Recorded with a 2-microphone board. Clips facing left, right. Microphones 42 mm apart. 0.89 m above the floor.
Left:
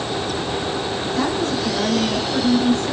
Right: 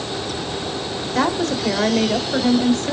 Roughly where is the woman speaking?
Right.